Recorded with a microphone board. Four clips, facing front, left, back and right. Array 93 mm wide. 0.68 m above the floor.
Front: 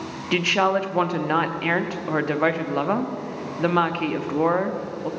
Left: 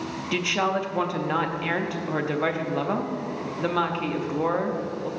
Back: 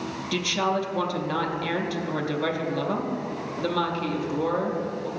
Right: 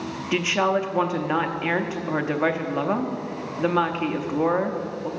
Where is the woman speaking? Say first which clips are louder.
Right 3 dB, front 5 dB; 15° right, 0.6 m.